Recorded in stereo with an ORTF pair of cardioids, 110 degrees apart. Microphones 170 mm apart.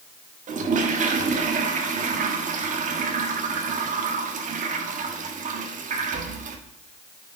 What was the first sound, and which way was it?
A toilet flushing, 50° right.